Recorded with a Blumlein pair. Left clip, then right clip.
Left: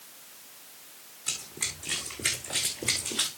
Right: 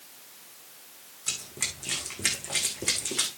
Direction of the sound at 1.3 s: 15° right.